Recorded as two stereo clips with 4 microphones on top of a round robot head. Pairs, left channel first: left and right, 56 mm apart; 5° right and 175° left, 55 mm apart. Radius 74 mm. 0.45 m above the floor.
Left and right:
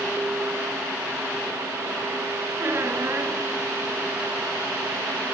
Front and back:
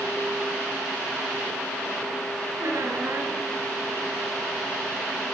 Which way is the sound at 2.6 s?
135° right.